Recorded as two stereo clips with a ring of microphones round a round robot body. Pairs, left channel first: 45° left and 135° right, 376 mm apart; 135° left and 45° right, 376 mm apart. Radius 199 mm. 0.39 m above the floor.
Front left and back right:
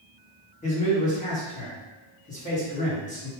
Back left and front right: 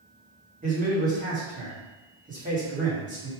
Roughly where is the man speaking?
Ahead.